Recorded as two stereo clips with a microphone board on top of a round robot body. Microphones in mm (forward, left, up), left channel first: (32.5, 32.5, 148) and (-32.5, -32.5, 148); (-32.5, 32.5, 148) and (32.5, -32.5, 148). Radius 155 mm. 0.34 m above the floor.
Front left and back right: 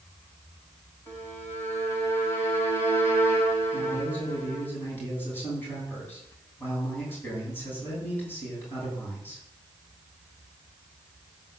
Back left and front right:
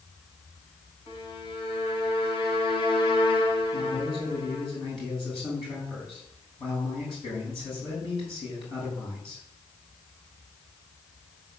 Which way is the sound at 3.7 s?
110° left.